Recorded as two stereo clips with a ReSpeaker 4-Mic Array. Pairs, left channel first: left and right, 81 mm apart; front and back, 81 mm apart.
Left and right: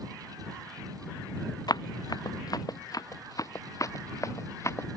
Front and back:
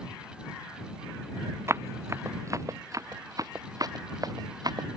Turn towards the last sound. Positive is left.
turn(degrees=145)